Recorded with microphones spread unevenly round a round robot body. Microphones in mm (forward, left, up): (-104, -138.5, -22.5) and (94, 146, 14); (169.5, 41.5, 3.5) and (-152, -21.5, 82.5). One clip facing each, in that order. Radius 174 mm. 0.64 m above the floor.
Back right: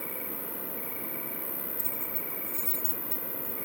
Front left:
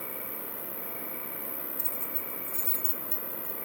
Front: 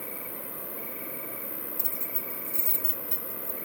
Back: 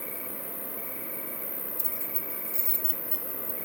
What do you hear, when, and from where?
0.0 s an insect: 160° right, 3.5 m
1.8 s keys jangling: straight ahead, 0.5 m